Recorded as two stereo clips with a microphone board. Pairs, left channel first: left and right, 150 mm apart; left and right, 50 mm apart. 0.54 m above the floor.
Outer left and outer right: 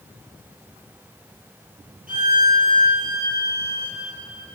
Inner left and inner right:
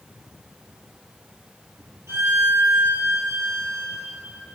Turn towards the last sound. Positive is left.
turn(degrees=-60)  # may be behind; listen again after turning